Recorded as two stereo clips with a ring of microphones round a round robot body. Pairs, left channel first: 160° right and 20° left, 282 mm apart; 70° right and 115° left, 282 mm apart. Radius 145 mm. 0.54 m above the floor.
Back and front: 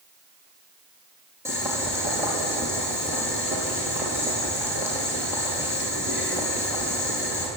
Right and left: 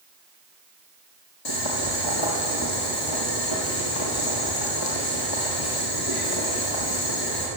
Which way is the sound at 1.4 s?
60° right.